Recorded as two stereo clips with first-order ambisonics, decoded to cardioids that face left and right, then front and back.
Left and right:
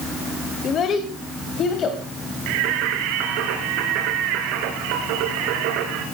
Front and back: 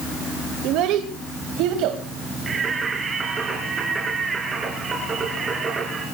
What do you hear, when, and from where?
0.6 s a child speaking: 150° left, 1.5 m; by 2.0 s 145° left, 2.5 m
2.5 s singing: 110° right, 3.5 m